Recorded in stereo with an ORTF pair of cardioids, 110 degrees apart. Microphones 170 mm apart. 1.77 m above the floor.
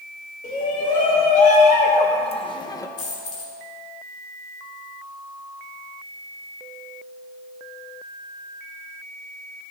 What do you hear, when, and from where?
0.4 s a shout: 55° left, 2.5 m; by 2.9 s 25° left, 0.9 m
3.0 s a dropped coin: 55° left, 4 m